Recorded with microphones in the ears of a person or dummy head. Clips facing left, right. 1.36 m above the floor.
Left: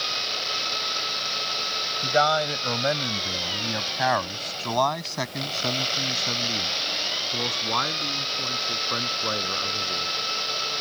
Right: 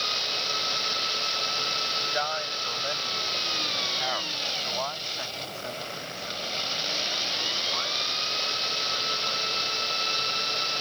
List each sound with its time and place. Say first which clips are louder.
2.0 s a man speaking: left 11 dB; 85° left